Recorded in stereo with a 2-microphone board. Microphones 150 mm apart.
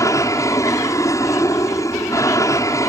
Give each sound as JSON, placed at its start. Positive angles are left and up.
{"t": 0.0, "sound": "an aircraft", "side_deg": 20}